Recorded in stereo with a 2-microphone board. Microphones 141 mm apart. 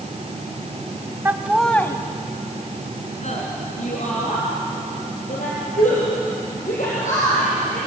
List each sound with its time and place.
1.2 s laughter: 15° right (ahead or behind), 1.1 m; by 7.9 s 65° left (ahead or behind), 7 m